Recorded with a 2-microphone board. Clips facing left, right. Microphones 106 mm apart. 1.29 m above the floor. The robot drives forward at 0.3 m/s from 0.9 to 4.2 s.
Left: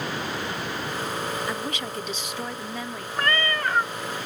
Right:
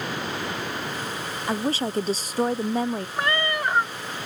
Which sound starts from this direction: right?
A woman speaking, at 1.5 s.